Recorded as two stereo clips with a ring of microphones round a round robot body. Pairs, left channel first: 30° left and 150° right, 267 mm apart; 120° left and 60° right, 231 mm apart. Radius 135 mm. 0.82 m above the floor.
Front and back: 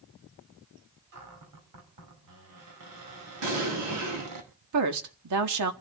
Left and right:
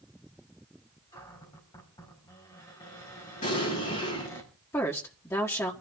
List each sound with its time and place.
1.1 s a cupboard door: 165° right, 4.5 m
3.4 s an explosion: 175° right, 8.5 m
4.7 s a woman speaking: 160° right, 1.7 m